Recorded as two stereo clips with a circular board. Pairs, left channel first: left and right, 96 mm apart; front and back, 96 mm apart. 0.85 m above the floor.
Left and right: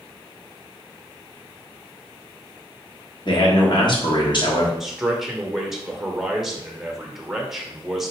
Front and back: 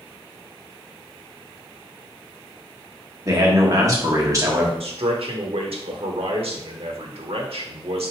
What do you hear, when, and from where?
3.2 s a man speaking: 125° left, 1.3 m
4.8 s a man speaking: 175° right, 1.1 m